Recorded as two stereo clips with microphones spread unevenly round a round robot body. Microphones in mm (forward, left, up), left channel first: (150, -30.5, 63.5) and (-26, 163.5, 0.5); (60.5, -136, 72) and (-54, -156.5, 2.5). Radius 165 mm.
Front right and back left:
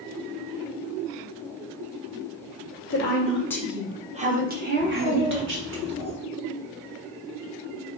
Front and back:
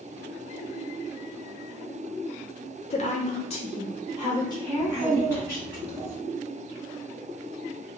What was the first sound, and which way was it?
A woman speaking, 50° right.